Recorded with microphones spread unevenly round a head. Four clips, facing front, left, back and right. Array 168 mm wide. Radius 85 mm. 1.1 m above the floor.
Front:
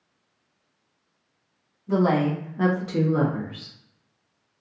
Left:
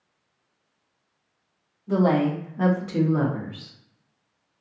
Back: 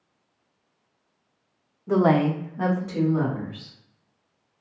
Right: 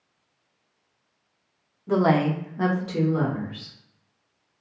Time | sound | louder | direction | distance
1.9 | a woman speaking | even, back 2 dB | 150° right | 0.7 m